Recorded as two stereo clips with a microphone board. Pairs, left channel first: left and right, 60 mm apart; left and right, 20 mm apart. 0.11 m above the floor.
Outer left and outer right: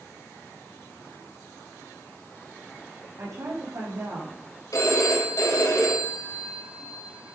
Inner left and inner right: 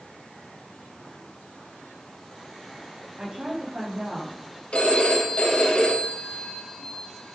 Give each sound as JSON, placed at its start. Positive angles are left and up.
{"t": 3.2, "sound": "a woman speaking", "side_deg": -70, "distance_m": 5.5}
{"t": 4.7, "sound": "a phone ringing", "side_deg": 60, "distance_m": 3.0}